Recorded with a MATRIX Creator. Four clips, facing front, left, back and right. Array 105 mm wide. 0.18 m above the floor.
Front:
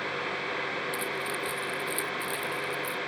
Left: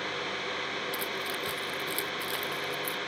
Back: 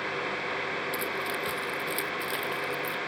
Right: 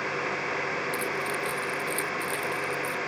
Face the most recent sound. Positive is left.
turn(degrees=140)